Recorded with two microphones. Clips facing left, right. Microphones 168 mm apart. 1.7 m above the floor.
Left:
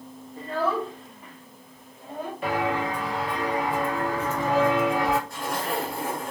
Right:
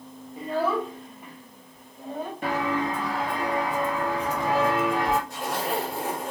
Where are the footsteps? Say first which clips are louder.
Left 1 dB; 40° right (ahead or behind), 2 m; by 5.2 s 5° left (ahead or behind), 1.8 m.